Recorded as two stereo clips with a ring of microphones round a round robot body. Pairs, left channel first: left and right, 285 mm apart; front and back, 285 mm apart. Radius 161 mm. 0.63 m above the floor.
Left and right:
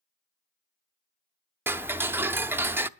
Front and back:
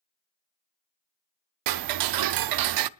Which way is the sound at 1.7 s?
175° right.